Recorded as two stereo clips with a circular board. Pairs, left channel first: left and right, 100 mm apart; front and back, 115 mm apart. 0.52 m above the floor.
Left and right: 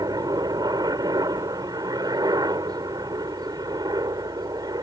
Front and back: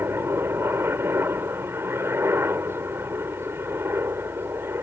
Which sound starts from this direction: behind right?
A helicopter, at 0.0 s.